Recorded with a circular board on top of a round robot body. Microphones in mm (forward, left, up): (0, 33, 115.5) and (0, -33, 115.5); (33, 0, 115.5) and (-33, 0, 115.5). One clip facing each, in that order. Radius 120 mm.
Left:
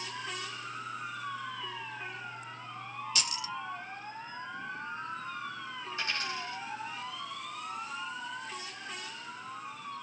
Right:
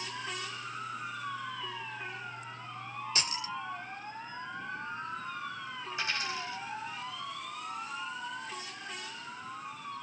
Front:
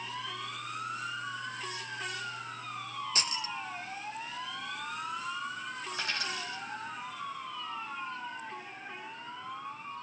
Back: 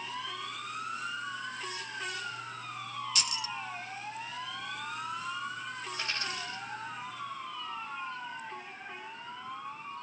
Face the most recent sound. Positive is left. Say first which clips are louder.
# right 1 dB, front 2 dB
turn(degrees=-15)